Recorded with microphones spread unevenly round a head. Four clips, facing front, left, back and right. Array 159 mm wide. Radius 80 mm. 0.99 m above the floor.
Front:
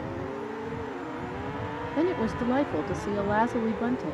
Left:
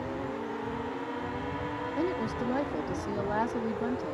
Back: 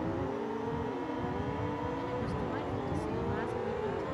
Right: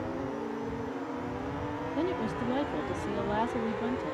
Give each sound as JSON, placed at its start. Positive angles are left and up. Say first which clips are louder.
{"t": 2.0, "sound": "a woman speaking", "louder": "even, front 9 dB", "azimuth_deg": 0}